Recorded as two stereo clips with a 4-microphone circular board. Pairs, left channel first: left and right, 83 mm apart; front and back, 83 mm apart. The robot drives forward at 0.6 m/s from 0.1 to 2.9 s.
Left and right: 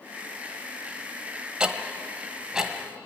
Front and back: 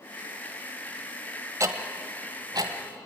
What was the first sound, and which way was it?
Ticking, 165° right.